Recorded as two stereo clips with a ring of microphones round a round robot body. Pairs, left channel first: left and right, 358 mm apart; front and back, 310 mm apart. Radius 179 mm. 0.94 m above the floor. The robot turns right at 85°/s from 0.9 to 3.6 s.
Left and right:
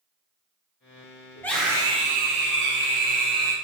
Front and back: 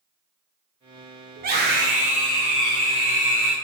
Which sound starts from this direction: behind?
A scream, at 1.4 s.